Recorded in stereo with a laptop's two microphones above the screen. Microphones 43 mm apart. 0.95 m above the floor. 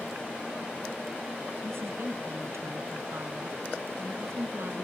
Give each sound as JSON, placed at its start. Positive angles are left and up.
{"t": 1.6, "sound": "a woman speaking", "side_deg": -70}